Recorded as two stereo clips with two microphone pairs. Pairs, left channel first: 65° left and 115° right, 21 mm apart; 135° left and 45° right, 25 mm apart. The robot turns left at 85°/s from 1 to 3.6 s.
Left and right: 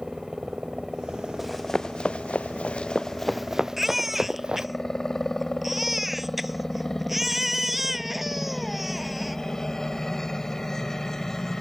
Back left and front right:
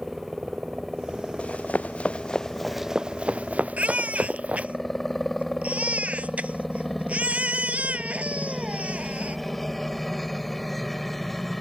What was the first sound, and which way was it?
A helicopter, 85° right.